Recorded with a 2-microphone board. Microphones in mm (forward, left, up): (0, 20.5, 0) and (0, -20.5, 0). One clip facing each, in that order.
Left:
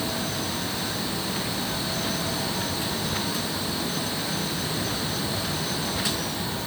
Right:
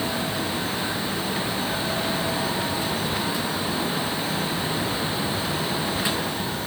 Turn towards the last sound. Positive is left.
No sound to turn to.